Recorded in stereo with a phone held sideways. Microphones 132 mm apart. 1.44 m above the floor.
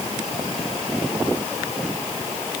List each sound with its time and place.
Only background noise.